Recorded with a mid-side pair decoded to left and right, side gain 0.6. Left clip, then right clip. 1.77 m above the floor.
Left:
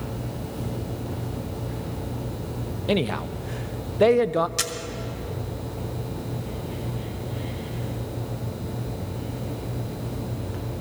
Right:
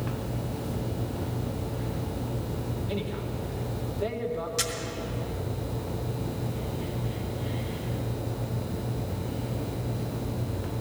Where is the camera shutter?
25° left, 1.3 m.